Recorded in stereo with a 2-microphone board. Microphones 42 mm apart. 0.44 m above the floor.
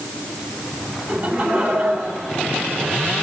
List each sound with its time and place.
1.1 s laughter: 50° right (ahead or behind), 2.5 m